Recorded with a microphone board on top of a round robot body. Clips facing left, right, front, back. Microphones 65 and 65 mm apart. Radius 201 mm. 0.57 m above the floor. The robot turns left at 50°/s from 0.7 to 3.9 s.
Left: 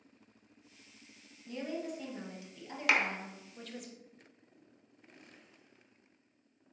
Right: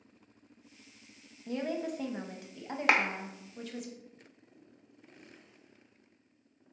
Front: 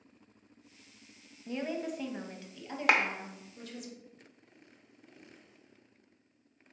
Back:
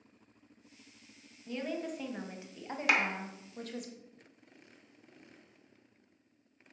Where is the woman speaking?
65° right, 0.8 m; by 3.9 s 175° left, 0.8 m.